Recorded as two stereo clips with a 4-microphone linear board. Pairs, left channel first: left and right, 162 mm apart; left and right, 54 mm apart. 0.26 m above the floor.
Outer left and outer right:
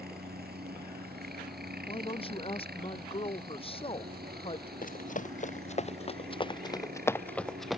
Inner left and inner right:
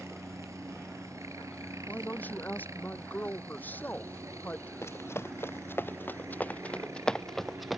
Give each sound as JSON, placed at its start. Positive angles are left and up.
{"t": 0.0, "sound": "a helicopter", "side_deg": -75}
{"t": 1.9, "sound": "a woman speaking", "side_deg": 35}
{"t": 4.8, "sound": "running footsteps", "side_deg": 55}